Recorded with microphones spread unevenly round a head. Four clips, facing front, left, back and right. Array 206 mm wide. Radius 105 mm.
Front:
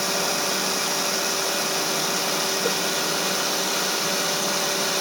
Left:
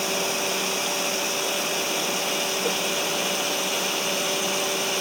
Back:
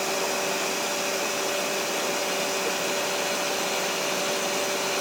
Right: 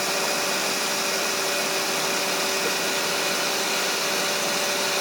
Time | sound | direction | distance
0.0 | running water | 15° left | 0.9 m